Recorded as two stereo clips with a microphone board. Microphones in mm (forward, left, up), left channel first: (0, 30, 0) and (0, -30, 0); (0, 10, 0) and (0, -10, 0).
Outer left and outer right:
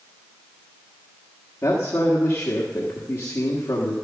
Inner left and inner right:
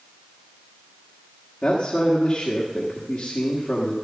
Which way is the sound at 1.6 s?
55° left (ahead or behind).